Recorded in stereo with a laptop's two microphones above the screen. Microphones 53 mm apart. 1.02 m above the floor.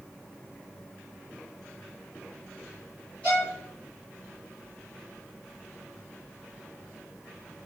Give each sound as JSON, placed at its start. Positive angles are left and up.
{"t": 3.2, "sound": "a violin", "side_deg": 25, "distance_m": 1.9}